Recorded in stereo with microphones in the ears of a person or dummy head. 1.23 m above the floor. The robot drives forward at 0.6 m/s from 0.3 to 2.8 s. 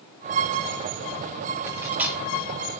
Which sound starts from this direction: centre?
Cutlery clinking, at 1.7 s.